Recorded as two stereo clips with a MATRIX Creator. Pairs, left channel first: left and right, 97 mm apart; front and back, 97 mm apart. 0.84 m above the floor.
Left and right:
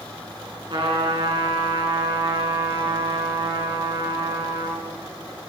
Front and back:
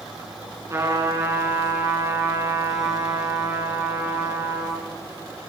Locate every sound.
0.7 s a trumpet: 120° right, 6.5 m